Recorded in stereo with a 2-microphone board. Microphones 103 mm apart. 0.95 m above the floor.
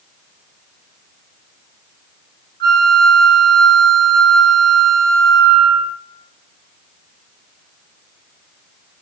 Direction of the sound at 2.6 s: 45° left (ahead or behind).